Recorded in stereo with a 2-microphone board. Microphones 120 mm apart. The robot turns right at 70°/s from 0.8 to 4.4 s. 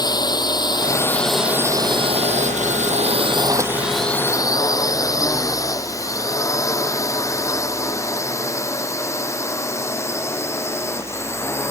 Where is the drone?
35° left (ahead or behind); by 11.7 s 20° left (ahead or behind).